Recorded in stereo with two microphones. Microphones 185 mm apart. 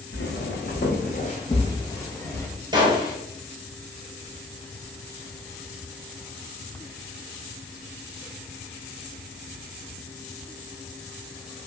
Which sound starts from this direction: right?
A gunshot, at 2.7 s.